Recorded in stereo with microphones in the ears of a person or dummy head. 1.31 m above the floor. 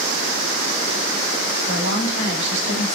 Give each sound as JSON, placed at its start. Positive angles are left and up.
{"t": 1.7, "sound": "a woman speaking", "side_deg": -50, "distance_m": 3.0}